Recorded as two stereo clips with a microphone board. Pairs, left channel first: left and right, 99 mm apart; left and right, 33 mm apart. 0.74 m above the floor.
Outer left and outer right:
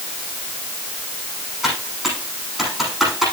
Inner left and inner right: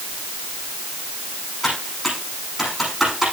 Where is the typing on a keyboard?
Centre (ahead or behind), 9.5 m.